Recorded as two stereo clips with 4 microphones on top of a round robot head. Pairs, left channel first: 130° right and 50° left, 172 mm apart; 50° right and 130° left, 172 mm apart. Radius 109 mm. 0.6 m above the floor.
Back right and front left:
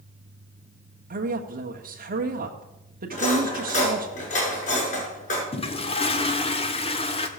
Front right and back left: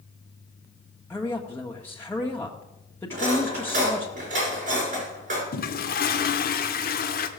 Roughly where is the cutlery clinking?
Behind.